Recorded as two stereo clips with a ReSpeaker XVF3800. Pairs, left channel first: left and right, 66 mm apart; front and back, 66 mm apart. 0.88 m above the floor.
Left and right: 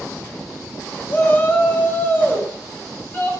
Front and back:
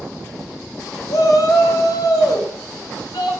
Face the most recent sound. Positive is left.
turn(degrees=30)